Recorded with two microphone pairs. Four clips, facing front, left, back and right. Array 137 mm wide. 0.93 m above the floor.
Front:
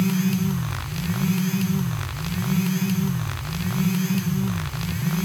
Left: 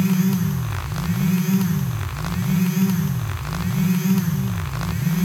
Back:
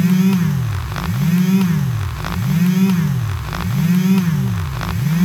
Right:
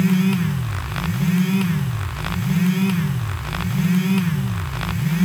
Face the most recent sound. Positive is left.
No sound to turn to.